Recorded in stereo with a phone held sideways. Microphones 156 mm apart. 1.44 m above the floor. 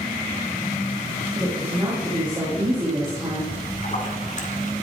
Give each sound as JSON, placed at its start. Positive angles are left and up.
{"t": 1.4, "sound": "a woman speaking", "side_deg": -25, "distance_m": 3.0}
{"t": 3.5, "sound": "a splash", "side_deg": 50, "distance_m": 2.5}